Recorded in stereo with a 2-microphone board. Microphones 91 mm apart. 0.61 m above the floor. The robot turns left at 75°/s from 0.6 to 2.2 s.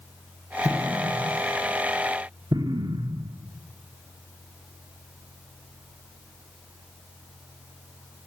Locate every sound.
0.7 s an explosion: 5° left (ahead or behind), 0.7 m; by 3.4 s 55° right (ahead or behind), 0.7 m